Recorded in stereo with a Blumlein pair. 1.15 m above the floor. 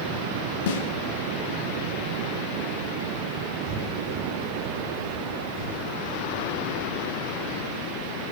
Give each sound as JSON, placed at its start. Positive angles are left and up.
{"t": 0.7, "sound": "a snare drum", "azimuth_deg": 55, "distance_m": 1.5}
{"t": 3.6, "sound": "breathing", "azimuth_deg": -40, "distance_m": 4.0}